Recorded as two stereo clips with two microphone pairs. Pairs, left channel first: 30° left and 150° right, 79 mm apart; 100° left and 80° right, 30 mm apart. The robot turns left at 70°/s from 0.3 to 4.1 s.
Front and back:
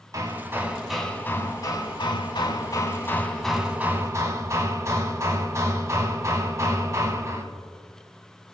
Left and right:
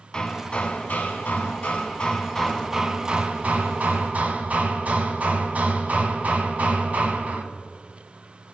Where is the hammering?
165° left, 0.7 m; by 7.4 s 100° right, 0.7 m.